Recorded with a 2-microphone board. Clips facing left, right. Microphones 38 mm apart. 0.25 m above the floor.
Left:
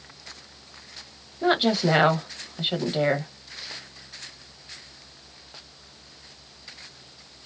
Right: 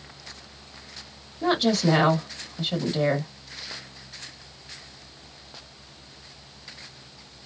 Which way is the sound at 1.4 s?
20° left (ahead or behind).